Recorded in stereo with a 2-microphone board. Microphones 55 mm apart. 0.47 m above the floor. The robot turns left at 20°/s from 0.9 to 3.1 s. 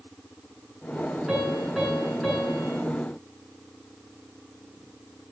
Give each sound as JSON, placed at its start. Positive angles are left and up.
{"t": 1.3, "sound": "a piano", "azimuth_deg": -165, "distance_m": 8.0}